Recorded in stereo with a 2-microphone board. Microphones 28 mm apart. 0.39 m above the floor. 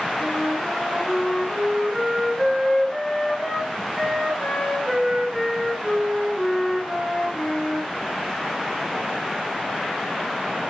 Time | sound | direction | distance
0.2 | a flute | 10° left (ahead or behind) | 2.5 m